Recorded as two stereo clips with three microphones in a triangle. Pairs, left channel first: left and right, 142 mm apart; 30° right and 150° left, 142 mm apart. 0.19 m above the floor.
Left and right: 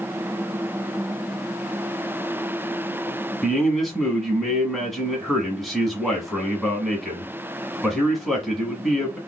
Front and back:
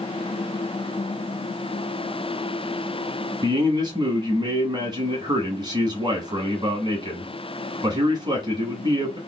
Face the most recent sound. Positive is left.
turn(degrees=180)